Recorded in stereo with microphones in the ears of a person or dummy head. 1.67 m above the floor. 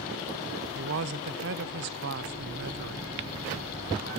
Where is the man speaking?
50° right (ahead or behind), 0.6 m.